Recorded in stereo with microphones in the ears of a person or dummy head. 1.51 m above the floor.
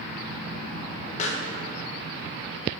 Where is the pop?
40° left (ahead or behind), 0.8 m.